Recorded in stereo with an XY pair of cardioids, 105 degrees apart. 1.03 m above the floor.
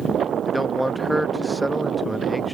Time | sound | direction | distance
0.5 | a man speaking | straight ahead | ?